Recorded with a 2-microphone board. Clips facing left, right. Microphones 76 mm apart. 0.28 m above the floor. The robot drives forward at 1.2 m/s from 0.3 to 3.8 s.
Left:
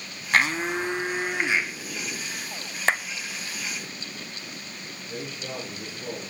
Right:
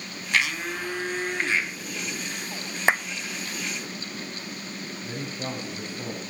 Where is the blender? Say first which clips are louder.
Left 4 dB; 40° left (ahead or behind), 0.8 m; by 1.7 s 15° left (ahead or behind), 2 m.